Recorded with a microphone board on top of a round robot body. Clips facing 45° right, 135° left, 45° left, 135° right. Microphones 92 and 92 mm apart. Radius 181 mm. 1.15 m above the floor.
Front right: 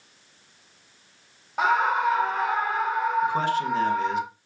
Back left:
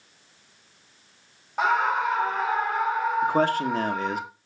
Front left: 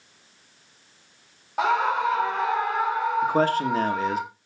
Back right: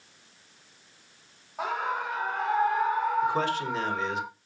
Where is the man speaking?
90° left, 1.9 m.